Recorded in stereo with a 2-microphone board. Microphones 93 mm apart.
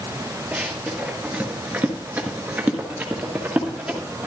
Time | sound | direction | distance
0.5 | running footsteps | 10° right (ahead or behind) | 2.5 m